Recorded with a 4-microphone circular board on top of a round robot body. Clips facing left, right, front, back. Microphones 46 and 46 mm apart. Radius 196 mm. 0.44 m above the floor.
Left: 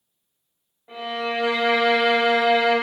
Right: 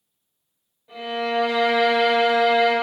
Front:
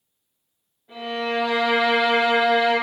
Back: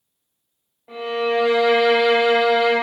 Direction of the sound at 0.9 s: 150° left.